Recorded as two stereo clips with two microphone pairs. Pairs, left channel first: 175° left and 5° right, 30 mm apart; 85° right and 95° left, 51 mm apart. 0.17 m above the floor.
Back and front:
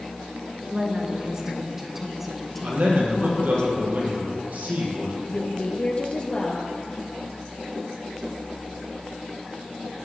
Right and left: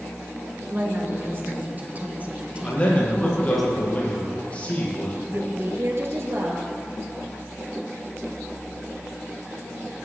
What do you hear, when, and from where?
0.6 s a woman speaking: 55° left, 3 m; by 3.6 s 175° right, 1.8 m
2.6 s a man speaking: 25° right, 5.5 m
5.3 s a woman speaking: 120° left, 3 m